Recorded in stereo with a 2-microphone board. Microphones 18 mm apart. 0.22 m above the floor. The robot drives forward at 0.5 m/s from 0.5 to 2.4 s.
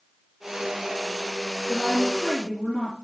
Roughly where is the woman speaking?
Left.